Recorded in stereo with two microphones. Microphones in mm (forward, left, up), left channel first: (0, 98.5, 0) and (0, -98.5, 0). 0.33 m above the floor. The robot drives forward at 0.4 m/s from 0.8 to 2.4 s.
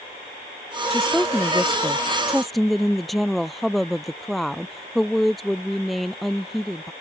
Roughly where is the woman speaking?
Centre.